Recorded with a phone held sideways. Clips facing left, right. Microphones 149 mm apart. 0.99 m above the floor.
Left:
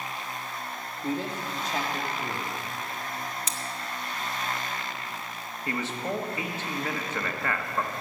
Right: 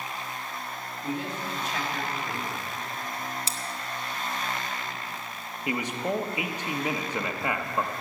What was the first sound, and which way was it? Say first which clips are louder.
A man speaking: left 2 dB; 40° left (ahead or behind).